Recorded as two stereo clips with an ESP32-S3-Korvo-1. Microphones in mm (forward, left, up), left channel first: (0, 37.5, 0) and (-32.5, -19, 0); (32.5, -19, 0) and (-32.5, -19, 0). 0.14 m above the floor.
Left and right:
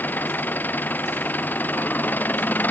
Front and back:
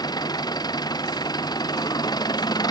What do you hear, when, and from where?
0.0 s an engine running: 5° right